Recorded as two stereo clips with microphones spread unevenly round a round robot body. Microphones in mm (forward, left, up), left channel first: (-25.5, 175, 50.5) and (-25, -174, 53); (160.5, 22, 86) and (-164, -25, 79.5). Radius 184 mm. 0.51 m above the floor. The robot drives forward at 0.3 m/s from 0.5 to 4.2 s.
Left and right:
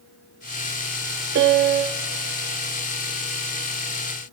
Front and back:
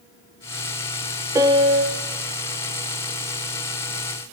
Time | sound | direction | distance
1.4 | a piano | 100° right | 0.7 m